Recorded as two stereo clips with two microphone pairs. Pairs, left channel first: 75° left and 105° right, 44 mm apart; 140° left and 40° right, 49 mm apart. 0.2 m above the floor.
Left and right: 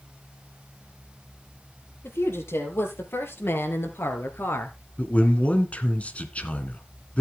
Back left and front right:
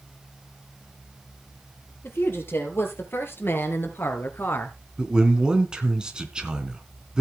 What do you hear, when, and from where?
2.0 s a woman speaking: 100° left, 5 m
5.0 s a man speaking: 30° left, 2.5 m